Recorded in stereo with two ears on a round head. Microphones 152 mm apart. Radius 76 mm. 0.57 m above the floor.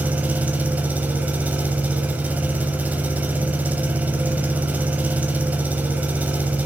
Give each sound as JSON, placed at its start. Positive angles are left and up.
{"t": 0.0, "sound": "an engine running", "side_deg": -10, "distance_m": 1.3}